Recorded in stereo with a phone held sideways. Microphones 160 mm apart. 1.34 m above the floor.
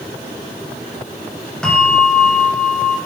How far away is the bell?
About 8 m.